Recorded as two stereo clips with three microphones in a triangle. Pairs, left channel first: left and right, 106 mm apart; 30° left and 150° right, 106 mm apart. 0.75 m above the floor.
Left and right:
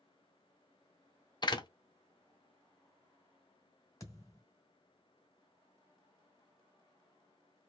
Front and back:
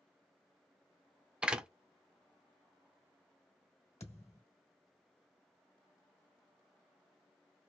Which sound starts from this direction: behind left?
A door slam, at 1.4 s.